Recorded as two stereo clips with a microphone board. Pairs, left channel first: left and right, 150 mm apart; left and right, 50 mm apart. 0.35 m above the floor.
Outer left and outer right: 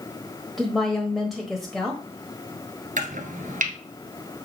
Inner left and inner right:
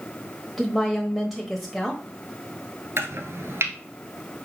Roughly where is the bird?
No bird in this recording.